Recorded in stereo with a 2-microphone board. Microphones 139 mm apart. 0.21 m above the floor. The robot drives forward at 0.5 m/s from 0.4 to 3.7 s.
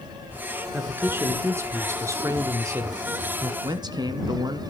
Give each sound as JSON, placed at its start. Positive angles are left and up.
{"t": 0.7, "sound": "a man speaking", "side_deg": -15, "distance_m": 2.5}
{"t": 3.6, "sound": "a man speaking", "side_deg": -30, "distance_m": 2.5}